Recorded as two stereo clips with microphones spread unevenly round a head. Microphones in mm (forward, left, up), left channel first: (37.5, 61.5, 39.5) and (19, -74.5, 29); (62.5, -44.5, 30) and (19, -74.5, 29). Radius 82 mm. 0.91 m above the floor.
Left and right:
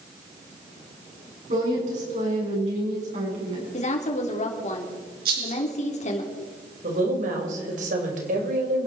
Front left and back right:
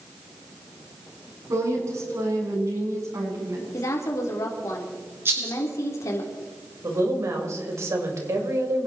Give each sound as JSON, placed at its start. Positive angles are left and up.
{"t": 1.5, "sound": "a woman speaking", "azimuth_deg": -140, "distance_m": 7.5}
{"t": 3.7, "sound": "a woman speaking", "azimuth_deg": 50, "distance_m": 3.5}
{"t": 5.2, "sound": "a rattle", "azimuth_deg": -110, "distance_m": 7.5}
{"t": 6.8, "sound": "a woman speaking", "azimuth_deg": -130, "distance_m": 4.0}